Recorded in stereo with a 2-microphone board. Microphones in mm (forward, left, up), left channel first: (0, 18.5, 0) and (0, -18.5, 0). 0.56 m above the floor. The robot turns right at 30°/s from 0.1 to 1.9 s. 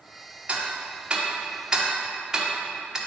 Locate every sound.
0.5 s ticking: 40° right (ahead or behind), 1.0 m; by 3.0 s 15° right (ahead or behind), 1.0 m